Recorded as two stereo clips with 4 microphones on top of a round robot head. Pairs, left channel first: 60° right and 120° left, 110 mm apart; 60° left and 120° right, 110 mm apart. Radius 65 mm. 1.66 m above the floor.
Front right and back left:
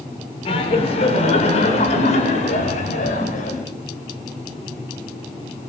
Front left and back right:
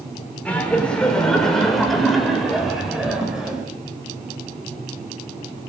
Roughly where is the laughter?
Ahead.